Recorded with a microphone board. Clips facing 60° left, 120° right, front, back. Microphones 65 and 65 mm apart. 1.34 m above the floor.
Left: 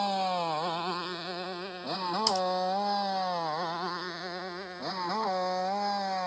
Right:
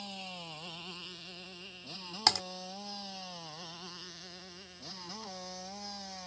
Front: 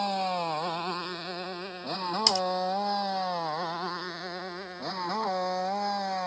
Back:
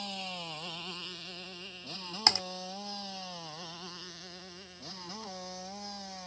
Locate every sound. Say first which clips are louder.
0.0 s a motorcycle: left 17 dB, front 13 dB; 35° left; by 6.3 s 30° left
2.3 s typing on a keyboard: left 1 dB, front 2 dB; 130° right